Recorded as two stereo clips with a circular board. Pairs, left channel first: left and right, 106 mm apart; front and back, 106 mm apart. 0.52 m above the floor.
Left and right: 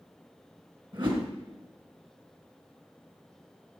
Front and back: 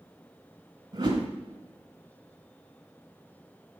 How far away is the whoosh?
About 1.9 m.